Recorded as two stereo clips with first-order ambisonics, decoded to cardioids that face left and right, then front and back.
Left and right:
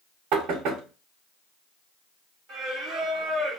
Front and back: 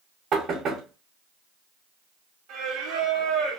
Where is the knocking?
125° right, 1.6 m.